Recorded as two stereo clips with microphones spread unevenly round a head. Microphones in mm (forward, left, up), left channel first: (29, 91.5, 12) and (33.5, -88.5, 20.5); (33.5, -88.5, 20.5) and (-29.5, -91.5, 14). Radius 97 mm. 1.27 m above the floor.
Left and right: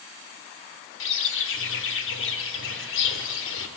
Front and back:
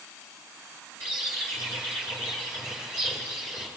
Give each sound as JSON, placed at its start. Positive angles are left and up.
{"t": 1.0, "sound": "a bird", "azimuth_deg": 80, "distance_m": 2.0}